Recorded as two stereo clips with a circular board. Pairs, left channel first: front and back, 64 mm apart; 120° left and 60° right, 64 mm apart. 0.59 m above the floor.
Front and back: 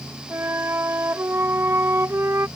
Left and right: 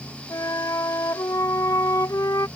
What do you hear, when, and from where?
0.3 s a flute: 135° left